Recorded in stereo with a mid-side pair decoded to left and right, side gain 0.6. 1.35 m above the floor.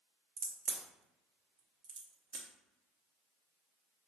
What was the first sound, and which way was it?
A crack, 65° right.